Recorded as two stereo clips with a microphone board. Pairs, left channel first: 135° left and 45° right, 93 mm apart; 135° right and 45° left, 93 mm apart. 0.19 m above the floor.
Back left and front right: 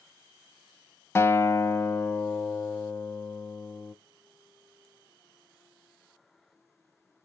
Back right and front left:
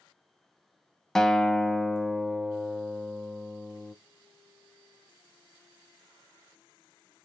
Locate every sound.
1.1 s a guitar: 145° left, 0.5 m